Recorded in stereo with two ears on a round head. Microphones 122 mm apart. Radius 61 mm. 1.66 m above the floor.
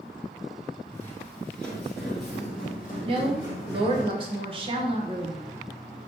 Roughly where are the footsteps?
Centre.